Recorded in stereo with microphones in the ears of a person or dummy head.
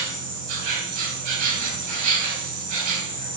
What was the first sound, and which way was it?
An insect, 45° right (ahead or behind).